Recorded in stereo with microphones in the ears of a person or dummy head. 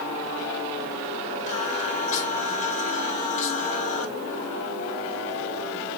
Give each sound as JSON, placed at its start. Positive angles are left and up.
{"t": 1.5, "sound": "singing", "side_deg": 40, "distance_m": 4.0}